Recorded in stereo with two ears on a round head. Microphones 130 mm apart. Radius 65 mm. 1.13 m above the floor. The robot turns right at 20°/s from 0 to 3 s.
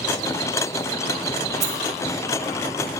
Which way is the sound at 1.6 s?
50° right (ahead or behind).